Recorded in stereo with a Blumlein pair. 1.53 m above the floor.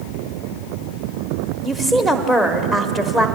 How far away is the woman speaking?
About 1.1 m.